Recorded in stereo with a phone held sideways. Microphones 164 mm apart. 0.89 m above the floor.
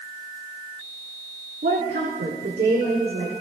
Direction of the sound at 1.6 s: 75° right (ahead or behind).